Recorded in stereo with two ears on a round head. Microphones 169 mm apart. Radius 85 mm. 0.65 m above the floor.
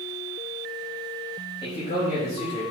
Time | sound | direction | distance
1.6 | a man speaking | 35° left (ahead or behind) | 4 m